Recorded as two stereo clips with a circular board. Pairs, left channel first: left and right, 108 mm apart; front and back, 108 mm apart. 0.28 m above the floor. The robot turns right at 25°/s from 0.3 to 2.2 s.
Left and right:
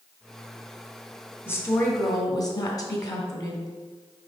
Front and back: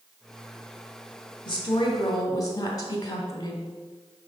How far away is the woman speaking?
About 1.9 m.